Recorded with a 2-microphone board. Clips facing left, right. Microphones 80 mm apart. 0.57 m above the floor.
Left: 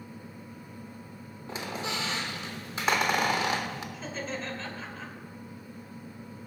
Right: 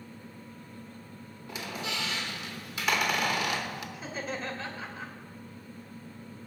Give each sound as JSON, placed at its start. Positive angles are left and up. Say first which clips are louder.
{"t": 1.5, "sound": "a squeak", "louder": "left 2 dB", "side_deg": 30, "distance_m": 0.9}
{"t": 3.9, "sound": "laughter", "louder": "even", "side_deg": -10, "distance_m": 1.8}